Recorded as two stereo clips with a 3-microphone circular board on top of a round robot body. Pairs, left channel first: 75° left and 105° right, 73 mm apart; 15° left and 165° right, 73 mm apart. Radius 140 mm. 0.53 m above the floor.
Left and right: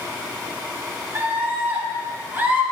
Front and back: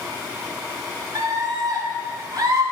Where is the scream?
165° right, 1.7 m.